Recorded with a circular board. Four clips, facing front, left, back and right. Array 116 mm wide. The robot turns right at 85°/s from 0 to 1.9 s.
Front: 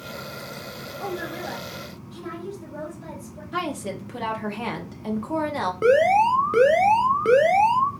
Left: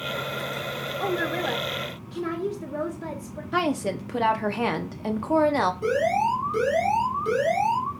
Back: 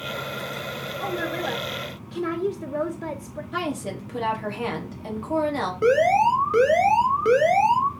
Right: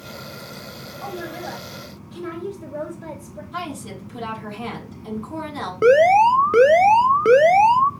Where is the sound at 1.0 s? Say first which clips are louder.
Left 4 dB, back 3 dB; 80° left, 1.7 m; by 3.4 s 155° left, 1.7 m.